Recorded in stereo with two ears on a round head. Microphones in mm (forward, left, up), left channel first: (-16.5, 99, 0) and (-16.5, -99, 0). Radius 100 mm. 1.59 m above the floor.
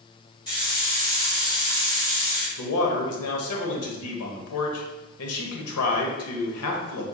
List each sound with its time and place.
0.5 s a hiss: 20° left (ahead or behind), 1.7 m
2.6 s a man speaking: 80° left, 0.9 m